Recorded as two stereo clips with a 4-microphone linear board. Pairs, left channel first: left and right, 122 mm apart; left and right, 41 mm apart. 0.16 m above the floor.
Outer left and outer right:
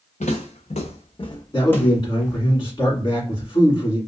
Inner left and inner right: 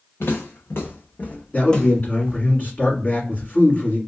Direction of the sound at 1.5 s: 40° left (ahead or behind).